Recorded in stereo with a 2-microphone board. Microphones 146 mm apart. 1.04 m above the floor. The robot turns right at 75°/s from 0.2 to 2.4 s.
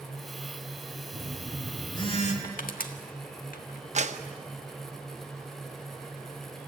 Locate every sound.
1.1 s a phone buzzing: 35° right, 2.5 m; by 2.3 s 60° left, 2.5 m
2.4 s crushing: 75° left (ahead or behind), 1.6 m
4.0 s a clap: 50° right (ahead or behind), 1.0 m